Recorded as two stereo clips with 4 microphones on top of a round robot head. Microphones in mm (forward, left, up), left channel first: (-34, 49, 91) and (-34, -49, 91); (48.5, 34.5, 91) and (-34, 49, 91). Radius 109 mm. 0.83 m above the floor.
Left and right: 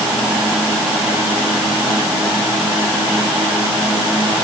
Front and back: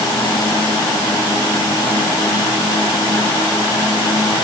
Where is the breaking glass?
No breaking glass in this recording.